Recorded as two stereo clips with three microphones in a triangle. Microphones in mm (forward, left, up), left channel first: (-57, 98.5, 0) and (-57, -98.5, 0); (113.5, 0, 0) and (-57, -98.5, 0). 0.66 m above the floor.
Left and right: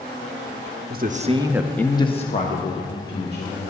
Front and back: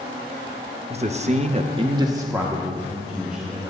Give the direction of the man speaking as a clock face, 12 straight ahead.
3 o'clock.